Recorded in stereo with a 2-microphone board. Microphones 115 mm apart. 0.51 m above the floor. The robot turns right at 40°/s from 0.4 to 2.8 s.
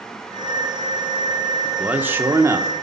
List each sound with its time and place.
1.6 s a man speaking: 160° right, 0.8 m; by 2.7 s 120° right, 0.8 m